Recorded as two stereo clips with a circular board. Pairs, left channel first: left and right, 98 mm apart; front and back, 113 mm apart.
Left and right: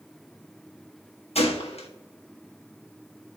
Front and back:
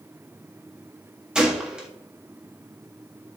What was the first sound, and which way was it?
A gunshot, 95° left.